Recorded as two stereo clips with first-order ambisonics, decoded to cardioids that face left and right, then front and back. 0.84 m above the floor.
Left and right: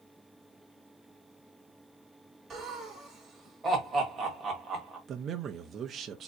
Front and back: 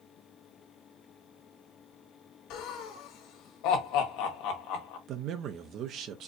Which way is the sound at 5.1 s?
145° right.